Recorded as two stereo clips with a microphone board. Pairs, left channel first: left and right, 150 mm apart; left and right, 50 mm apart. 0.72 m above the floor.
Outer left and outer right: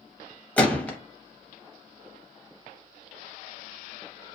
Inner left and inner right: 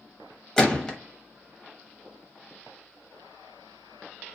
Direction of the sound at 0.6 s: 10° left (ahead or behind).